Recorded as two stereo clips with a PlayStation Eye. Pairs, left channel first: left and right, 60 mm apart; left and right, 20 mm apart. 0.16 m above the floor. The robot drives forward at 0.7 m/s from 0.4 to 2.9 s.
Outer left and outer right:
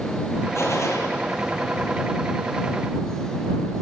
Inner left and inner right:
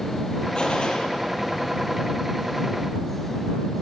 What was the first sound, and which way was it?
A gunshot, 50° left (ahead or behind).